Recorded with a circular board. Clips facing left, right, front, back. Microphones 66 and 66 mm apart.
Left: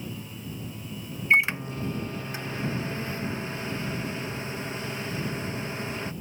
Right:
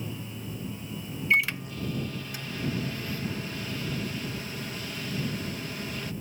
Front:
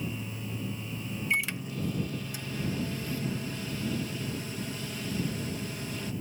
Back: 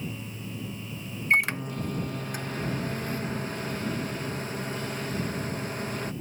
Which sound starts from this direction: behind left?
A microwave, at 1.3 s.